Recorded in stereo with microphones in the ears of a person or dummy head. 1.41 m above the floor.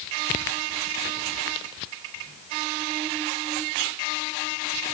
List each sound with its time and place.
Only background noise.